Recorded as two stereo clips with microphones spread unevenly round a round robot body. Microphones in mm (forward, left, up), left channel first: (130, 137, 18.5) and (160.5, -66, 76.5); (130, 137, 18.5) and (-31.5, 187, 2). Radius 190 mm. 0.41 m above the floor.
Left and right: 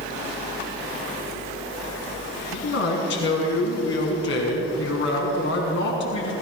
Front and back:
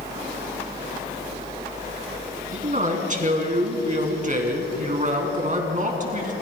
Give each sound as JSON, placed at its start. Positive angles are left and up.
{"t": 2.5, "sound": "a man speaking", "azimuth_deg": 125, "distance_m": 4.5}